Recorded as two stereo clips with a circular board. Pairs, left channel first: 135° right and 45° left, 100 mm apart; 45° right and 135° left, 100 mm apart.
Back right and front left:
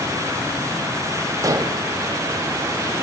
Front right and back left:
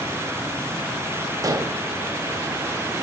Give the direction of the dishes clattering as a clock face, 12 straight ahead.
9 o'clock.